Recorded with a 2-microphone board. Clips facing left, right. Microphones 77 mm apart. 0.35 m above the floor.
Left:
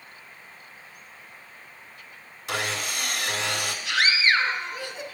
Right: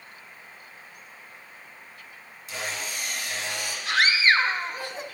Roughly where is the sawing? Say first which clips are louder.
Left 4 dB; left.